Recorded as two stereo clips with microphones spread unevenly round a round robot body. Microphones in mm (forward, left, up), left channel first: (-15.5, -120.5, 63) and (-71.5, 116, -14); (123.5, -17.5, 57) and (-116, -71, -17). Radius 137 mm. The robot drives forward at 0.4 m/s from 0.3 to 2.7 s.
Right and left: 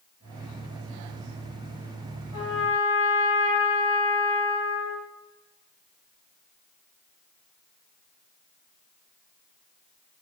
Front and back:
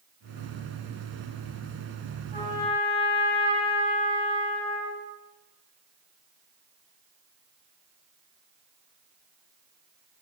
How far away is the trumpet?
About 3.5 m.